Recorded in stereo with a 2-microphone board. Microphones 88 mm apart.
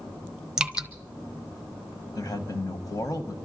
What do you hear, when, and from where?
0.6 s dripping: 10° right (ahead or behind), 1.0 m
2.1 s a man speaking: 45° left (ahead or behind), 1.4 m